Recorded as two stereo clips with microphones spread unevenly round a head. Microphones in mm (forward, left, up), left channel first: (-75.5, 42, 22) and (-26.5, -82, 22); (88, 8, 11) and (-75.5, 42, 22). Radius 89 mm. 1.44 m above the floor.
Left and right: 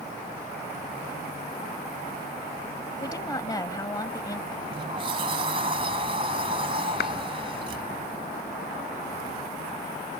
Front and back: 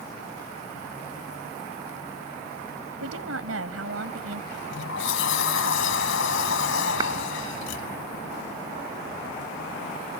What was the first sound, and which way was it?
A woman speaking, 175° left.